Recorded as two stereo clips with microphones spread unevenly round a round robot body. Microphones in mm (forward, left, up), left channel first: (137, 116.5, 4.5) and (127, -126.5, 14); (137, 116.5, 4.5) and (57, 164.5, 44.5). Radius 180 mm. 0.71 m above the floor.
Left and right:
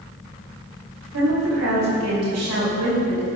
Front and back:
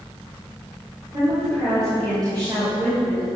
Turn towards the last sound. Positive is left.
turn(degrees=-135)